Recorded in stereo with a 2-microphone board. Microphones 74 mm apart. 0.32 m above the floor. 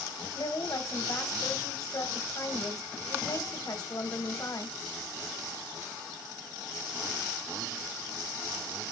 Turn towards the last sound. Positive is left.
turn(degrees=50)  # may be behind; listen again after turning